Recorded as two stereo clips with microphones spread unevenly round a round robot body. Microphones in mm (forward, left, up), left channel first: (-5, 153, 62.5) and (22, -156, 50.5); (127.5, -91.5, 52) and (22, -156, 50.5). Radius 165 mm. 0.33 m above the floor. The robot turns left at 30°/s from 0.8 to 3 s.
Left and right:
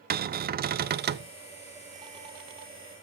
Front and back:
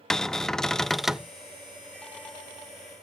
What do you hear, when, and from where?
0.1 s a cupboard door: 55° right, 0.5 m; by 1.3 s 70° right, 0.5 m